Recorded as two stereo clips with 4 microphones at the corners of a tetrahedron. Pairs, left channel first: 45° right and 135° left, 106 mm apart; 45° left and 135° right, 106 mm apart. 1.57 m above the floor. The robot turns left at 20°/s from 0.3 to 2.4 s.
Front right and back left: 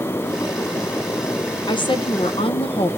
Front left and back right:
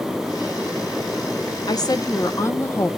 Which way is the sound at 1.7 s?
5° right.